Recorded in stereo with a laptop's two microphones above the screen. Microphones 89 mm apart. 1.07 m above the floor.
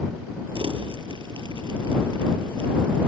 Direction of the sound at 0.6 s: 65° right (ahead or behind).